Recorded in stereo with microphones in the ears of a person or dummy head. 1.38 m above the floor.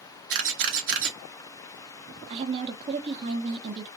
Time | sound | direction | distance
0.3 | a camera shutter | 65° right (ahead or behind) | 0.8 m
2.3 | a woman speaking | 30° right (ahead or behind) | 0.7 m